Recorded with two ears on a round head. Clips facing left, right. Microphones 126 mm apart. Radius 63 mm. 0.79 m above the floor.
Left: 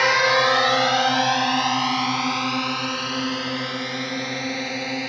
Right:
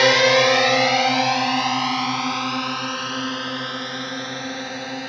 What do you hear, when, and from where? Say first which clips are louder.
0.0 s a drone: right 4 dB; 40° right (ahead or behind); by 5.1 s 10° left (ahead or behind)